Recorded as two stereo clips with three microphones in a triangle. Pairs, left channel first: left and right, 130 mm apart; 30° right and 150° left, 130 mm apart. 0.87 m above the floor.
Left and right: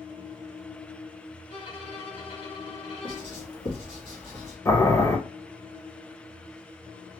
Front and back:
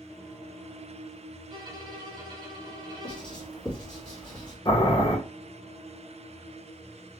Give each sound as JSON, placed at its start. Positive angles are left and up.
{"t": 1.5, "sound": "a violin", "azimuth_deg": 110, "distance_m": 1.0}
{"t": 3.0, "sound": "writing", "azimuth_deg": 50, "distance_m": 1.6}
{"t": 4.7, "sound": "boiling", "azimuth_deg": 25, "distance_m": 0.8}